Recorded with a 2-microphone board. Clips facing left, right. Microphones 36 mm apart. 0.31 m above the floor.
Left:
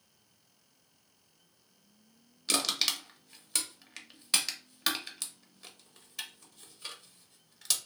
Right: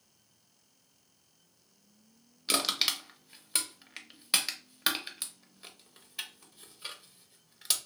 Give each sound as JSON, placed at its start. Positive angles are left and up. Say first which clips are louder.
{"t": 2.5, "sound": "crushing", "louder": "right 1 dB", "side_deg": -10, "distance_m": 0.6}